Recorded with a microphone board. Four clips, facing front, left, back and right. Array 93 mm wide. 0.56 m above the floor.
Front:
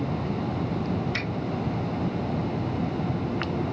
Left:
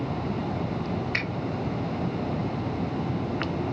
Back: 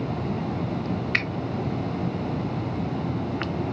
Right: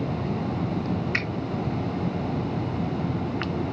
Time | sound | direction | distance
1.1 | a finger snap | 170° right | 1.1 m